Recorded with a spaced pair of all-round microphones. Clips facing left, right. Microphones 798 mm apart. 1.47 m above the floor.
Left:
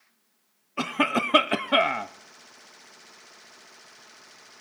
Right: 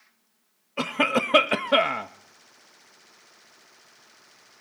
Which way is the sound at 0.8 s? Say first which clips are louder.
Right 1 dB; 10° right (ahead or behind).